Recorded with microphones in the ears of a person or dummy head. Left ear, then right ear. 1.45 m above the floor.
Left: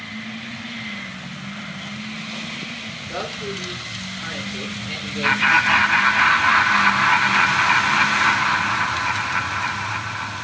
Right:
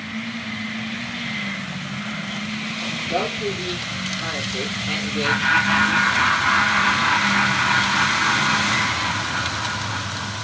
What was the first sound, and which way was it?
A man speaking, 5° right (ahead or behind).